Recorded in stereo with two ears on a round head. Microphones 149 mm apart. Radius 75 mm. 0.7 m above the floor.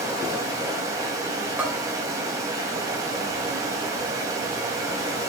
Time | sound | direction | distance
0.0 | running water | 20° right (ahead or behind) | 2.5 m
1.6 | a bell | 10° right (ahead or behind) | 3 m